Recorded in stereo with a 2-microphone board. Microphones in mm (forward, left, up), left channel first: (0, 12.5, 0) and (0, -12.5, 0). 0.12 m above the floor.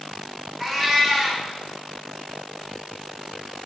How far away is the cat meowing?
About 0.9 m.